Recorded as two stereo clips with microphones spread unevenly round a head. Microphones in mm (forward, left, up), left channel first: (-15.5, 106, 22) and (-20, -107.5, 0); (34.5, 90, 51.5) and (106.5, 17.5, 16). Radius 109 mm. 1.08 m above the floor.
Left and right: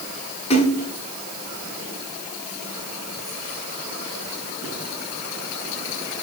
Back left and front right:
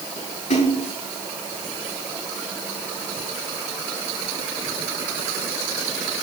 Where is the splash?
150° left, 5 m.